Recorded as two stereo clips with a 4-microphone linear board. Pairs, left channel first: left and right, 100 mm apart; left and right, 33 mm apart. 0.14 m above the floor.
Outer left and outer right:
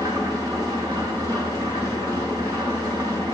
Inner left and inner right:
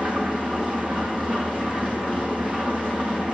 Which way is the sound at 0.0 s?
35° right (ahead or behind).